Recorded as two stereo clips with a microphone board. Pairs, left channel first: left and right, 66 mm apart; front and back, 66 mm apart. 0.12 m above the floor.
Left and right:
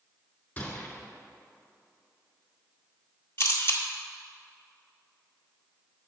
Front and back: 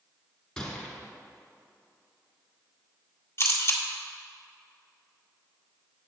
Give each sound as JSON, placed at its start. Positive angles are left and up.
{"t": 0.6, "sound": "a gunshot", "azimuth_deg": 65, "distance_m": 1.9}
{"t": 3.4, "sound": "a camera shutter", "azimuth_deg": 45, "distance_m": 1.0}